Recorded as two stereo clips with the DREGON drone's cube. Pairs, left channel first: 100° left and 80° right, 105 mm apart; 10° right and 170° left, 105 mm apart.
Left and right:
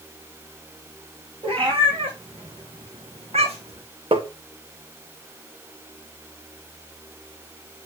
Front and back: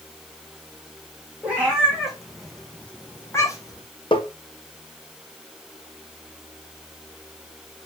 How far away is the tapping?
About 1.4 m.